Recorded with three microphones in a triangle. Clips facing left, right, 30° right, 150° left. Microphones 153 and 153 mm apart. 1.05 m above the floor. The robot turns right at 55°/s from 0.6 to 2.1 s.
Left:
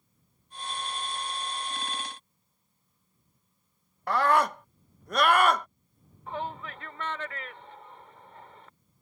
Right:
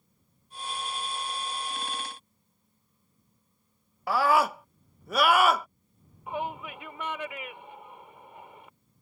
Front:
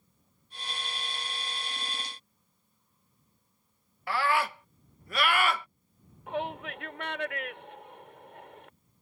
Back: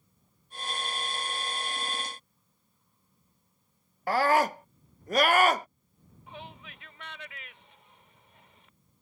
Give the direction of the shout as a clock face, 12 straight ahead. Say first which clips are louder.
Right 2 dB, front 13 dB; 12 o'clock.